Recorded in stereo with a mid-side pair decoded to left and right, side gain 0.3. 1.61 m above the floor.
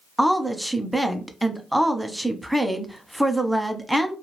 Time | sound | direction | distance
0.2 | a woman speaking | 5° right | 0.7 m